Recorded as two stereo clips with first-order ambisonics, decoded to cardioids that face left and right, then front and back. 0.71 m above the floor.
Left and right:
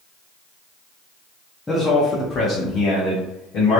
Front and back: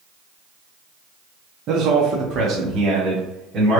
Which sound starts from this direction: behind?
A man speaking, at 1.7 s.